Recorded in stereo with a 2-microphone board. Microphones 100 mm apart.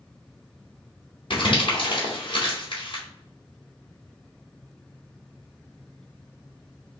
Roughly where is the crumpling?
Left.